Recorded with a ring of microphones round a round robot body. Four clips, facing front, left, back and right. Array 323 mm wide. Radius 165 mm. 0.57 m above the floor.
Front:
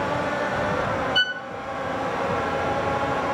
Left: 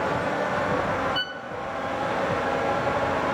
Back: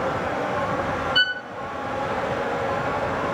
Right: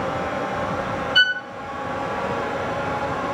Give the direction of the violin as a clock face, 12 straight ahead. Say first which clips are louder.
Right 11 dB, back 2 dB; 3 o'clock.